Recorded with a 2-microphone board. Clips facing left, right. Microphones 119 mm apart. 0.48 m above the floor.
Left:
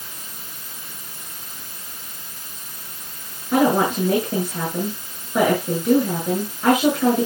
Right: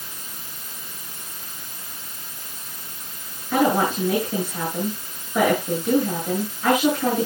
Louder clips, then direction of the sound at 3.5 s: Left 2 dB; 40° left (ahead or behind).